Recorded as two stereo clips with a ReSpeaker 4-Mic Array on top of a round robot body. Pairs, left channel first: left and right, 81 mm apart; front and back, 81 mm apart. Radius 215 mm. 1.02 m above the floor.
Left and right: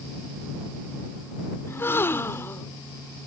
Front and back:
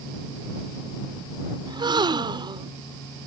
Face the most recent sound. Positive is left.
turn(degrees=155)